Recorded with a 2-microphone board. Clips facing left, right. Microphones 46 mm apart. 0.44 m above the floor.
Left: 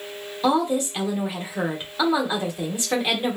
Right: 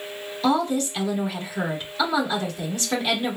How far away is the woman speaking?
About 0.9 m.